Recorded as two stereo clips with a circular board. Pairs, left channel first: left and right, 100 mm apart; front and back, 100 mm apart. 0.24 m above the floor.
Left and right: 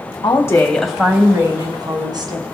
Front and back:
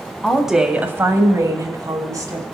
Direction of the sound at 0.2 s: 80° left.